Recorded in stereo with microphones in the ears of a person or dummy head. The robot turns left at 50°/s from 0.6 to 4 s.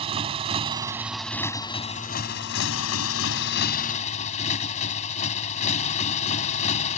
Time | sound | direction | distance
0.0 | a motorcycle | 150° right | ?